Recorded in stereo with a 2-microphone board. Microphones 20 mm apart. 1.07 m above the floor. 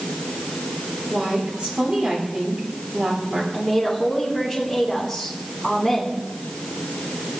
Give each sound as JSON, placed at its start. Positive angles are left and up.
{"t": 1.1, "sound": "a woman speaking", "side_deg": -80, "distance_m": 4.0}
{"t": 3.5, "sound": "a woman speaking", "side_deg": -10, "distance_m": 4.0}